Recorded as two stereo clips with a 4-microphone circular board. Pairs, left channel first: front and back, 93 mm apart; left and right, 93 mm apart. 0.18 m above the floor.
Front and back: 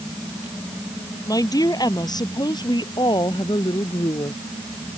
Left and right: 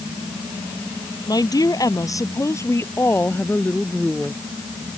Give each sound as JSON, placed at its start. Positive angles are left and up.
{"t": 1.3, "sound": "a woman speaking", "azimuth_deg": 45}